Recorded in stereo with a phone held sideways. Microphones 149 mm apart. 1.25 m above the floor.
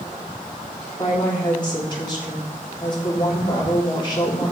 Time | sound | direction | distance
1.0 | a woman speaking | 30° left (ahead or behind) | 3.5 m